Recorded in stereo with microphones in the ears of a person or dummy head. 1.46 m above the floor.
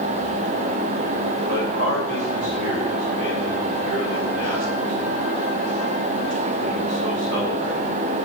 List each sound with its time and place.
1.5 s a man speaking: 40° right (ahead or behind), 2.5 m